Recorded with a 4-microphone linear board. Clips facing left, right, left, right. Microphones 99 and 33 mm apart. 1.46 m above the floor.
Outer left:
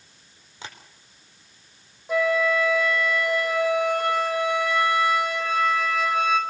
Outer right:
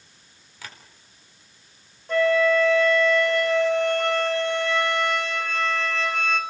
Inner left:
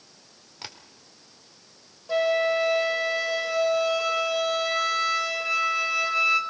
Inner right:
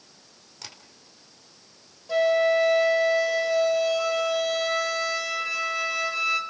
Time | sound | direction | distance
0.6 | tapping | 25° left (ahead or behind) | 4.5 m
2.1 | a flute | 10° left (ahead or behind) | 4.5 m